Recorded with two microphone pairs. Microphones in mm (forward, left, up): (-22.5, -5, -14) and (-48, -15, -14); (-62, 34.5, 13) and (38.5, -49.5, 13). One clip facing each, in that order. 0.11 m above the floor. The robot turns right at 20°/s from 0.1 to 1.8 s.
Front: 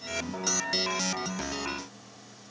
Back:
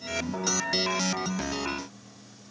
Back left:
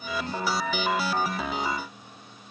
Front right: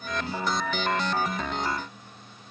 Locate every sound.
Only background noise.